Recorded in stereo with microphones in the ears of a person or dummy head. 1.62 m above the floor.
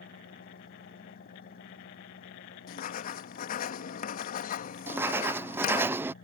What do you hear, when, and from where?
0.0 s an engine running: 60° left (ahead or behind)
2.7 s writing: 50° left (ahead or behind)
4.9 s writing: 20° right (ahead or behind)